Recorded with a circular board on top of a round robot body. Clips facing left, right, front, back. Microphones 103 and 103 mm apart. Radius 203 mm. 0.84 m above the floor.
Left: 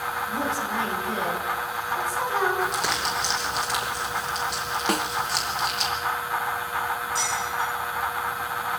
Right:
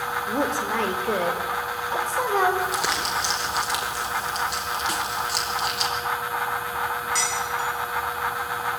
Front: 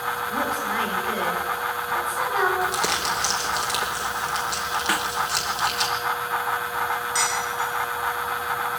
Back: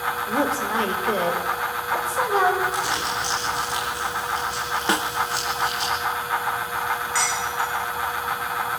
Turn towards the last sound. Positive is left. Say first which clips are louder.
# even, back 1 dB
turn(degrees=-70)